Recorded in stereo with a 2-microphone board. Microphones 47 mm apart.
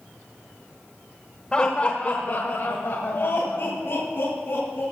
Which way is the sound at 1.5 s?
20° left (ahead or behind).